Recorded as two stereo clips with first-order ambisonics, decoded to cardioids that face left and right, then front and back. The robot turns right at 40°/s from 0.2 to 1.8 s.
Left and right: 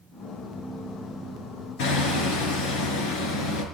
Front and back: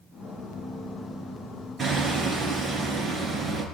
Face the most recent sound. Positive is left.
turn(degrees=105)